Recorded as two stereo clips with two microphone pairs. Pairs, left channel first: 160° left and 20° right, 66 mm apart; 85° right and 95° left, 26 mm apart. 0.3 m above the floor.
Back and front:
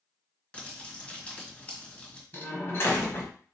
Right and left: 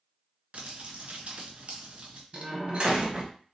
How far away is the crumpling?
About 1.7 m.